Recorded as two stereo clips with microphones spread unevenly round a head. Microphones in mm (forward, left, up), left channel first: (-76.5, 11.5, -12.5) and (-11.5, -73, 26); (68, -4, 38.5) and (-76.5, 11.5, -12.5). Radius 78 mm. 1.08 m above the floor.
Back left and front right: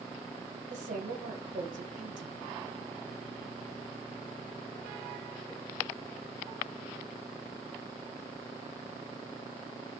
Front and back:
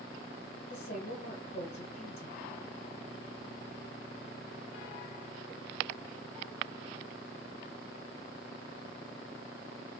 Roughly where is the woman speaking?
Ahead right.